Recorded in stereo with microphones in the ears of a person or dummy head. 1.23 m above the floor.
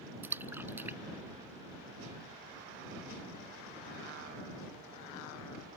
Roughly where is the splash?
Centre.